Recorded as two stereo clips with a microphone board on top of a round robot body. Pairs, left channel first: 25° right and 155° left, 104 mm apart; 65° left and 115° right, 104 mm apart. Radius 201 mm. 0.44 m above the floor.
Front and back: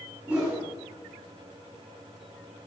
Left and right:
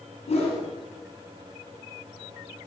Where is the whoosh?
85° left, 4 m.